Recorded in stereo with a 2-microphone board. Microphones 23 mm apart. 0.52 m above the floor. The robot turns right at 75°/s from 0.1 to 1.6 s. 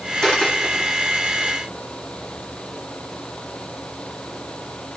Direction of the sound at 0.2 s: 30° left (ahead or behind).